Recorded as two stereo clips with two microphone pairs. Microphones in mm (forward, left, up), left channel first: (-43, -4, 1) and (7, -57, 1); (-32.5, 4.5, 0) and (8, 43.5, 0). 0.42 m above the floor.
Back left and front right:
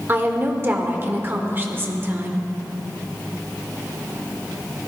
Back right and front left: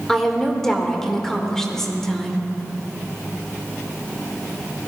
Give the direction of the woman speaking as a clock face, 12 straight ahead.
2 o'clock.